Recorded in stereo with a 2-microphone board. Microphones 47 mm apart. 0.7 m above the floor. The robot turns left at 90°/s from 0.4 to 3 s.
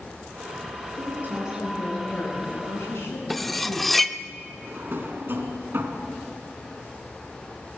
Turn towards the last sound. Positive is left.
turn(degrees=-55)  # may be behind; listen again after turning